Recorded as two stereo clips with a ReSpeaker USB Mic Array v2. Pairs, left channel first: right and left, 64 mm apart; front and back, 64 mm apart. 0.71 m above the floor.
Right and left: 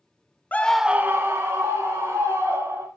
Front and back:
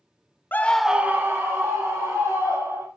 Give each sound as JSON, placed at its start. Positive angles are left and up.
{"t": 0.5, "sound": "a scream", "azimuth_deg": -40, "distance_m": 0.6}